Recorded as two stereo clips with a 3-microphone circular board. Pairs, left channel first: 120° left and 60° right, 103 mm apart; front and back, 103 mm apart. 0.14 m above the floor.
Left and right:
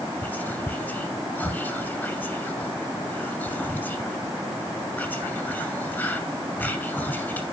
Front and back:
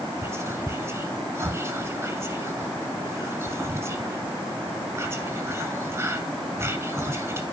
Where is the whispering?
165° left, 1.1 m.